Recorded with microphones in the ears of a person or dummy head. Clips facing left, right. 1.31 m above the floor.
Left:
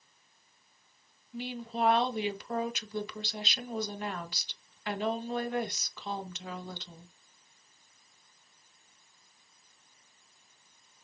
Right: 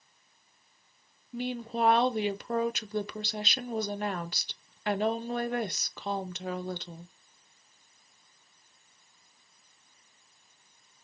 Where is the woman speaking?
40° right (ahead or behind), 0.5 m.